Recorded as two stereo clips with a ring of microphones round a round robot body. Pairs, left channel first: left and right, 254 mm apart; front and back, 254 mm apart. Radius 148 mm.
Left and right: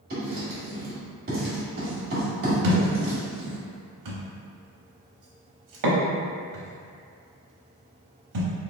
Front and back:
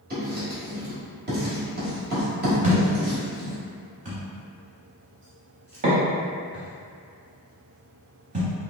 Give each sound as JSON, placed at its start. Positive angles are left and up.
{"t": 0.1, "sound": "writing", "azimuth_deg": -135, "distance_m": 1.4}
{"t": 2.6, "sound": "a thud", "azimuth_deg": -115, "distance_m": 0.8}